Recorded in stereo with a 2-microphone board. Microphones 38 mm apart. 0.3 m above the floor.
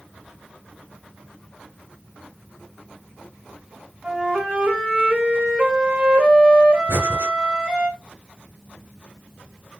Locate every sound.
4.0 s a flute: 20° right (ahead or behind), 1.4 m
6.9 s breathing: 70° right (ahead or behind), 1.1 m